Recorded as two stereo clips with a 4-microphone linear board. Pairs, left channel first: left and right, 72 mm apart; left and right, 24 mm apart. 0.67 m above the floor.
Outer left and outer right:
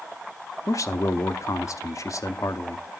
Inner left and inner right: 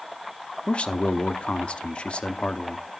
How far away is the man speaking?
About 0.7 m.